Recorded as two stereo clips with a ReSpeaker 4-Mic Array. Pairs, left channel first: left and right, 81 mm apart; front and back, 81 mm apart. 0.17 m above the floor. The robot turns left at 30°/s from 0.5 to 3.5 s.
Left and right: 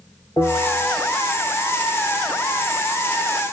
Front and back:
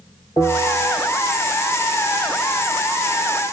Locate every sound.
0.4 s a bell: 40° left, 3.5 m; by 1.2 s 20° left, 3.5 m